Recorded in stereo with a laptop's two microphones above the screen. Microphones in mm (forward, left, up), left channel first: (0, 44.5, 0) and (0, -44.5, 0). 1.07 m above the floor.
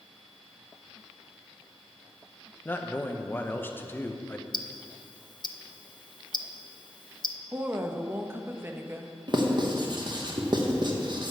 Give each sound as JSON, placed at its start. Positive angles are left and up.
{"t": 2.6, "sound": "a man speaking", "side_deg": 20, "distance_m": 1.0}
{"t": 4.5, "sound": "ticking", "side_deg": 50, "distance_m": 0.5}
{"t": 7.5, "sound": "a woman speaking", "side_deg": -25, "distance_m": 1.2}
{"t": 9.3, "sound": "writing", "side_deg": -55, "distance_m": 1.2}